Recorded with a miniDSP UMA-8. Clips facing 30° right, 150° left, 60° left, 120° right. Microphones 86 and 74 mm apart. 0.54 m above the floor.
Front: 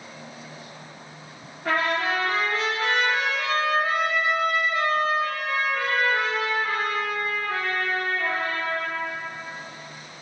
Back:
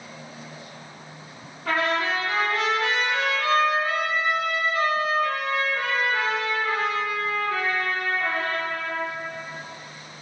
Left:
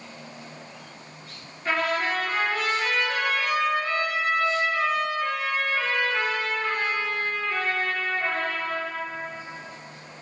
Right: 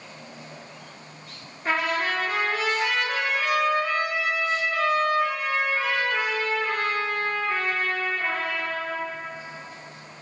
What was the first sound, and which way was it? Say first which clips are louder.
A trumpet: even, even; 50° right.